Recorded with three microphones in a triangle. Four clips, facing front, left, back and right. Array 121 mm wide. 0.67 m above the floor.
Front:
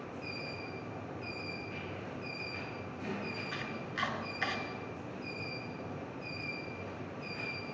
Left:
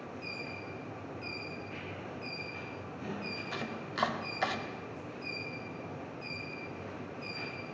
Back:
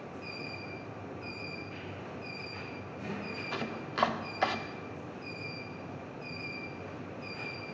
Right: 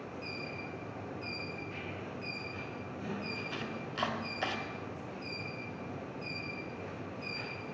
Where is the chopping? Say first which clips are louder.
Left 1 dB, back 4 dB; 165° left, 0.5 m.